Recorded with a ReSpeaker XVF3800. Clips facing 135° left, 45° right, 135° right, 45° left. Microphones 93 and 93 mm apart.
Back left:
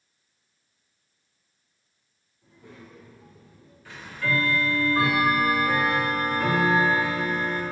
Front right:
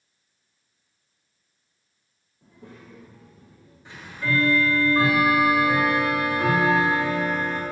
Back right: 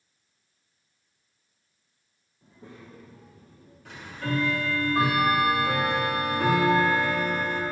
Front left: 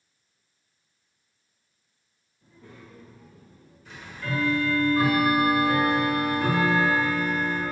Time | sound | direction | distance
2.4 | a child speaking | 70° right | 1.9 m
3.9 | ticking | 110° right | 3 m